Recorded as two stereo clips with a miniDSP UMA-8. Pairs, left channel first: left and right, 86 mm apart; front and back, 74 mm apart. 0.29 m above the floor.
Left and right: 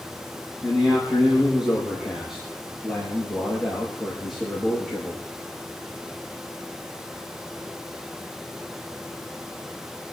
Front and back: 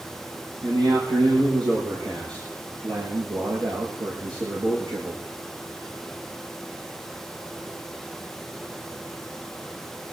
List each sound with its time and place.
0.6 s a man speaking: 170° right, 8 m; by 5.2 s 175° left, 5.5 m